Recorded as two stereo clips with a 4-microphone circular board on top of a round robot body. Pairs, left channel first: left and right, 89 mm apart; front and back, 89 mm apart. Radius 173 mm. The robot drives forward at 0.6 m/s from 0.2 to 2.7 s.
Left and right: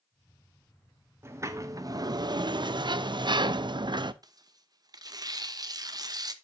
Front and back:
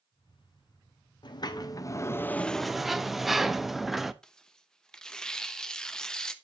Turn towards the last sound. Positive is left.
turn(degrees=-80)